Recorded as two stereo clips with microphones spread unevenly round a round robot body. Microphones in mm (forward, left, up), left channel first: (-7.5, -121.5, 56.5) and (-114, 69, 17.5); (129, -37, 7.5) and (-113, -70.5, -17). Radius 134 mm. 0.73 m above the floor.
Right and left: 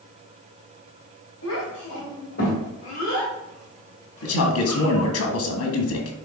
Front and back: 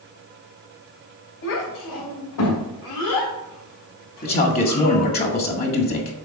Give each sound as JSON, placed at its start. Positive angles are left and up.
{"t": 1.4, "sound": "a child speaking", "azimuth_deg": -15, "distance_m": 3.0}
{"t": 4.2, "sound": "a man speaking", "azimuth_deg": -45, "distance_m": 1.6}